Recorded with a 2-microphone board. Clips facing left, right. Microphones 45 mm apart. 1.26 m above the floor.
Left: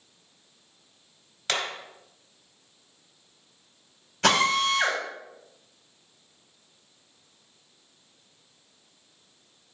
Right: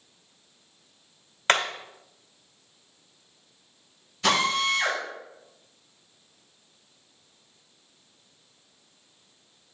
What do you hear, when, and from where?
1.5 s hammering: 45° right (ahead or behind), 1.7 m
4.2 s a drill: 60° left (ahead or behind), 6 m